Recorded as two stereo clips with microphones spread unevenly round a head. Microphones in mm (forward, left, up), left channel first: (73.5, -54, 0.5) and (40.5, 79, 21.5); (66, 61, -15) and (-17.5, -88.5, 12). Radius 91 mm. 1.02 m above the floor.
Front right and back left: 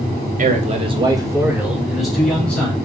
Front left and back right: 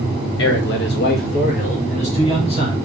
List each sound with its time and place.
0.4 s a man speaking: 80° left, 1.0 m; by 2.8 s 5° left, 2.5 m